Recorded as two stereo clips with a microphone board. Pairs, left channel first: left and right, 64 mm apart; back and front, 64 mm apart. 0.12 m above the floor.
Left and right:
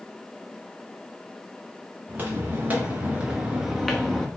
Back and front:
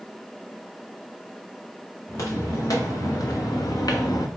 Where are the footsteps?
150° right, 1.8 m; by 4.3 s 170° left, 0.8 m.